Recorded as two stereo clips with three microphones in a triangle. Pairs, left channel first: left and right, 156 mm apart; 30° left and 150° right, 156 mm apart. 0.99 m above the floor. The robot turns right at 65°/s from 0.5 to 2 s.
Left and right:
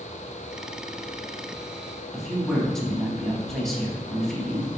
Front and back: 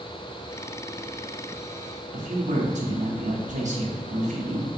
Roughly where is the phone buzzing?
No phone buzzing in this recording.